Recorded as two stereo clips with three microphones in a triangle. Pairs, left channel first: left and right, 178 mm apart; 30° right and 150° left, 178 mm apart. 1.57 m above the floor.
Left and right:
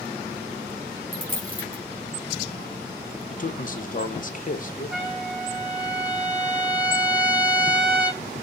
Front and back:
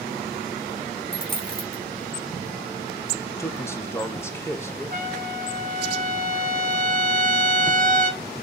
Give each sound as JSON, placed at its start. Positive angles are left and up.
{"t": 1.1, "sound": "a dropped coin", "azimuth_deg": -135, "distance_m": 2.0}
{"t": 3.3, "sound": "a man speaking", "azimuth_deg": 45, "distance_m": 0.8}
{"t": 4.9, "sound": "a trumpet", "azimuth_deg": 180, "distance_m": 3.5}